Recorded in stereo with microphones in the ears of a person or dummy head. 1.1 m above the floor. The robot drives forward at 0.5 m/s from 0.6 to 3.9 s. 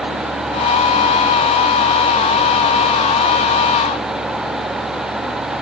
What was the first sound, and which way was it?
Only background noise.